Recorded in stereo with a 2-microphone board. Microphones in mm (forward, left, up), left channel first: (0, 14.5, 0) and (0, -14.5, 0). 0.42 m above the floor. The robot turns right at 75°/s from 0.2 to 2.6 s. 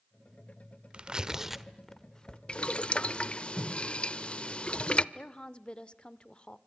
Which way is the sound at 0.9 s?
35° right (ahead or behind).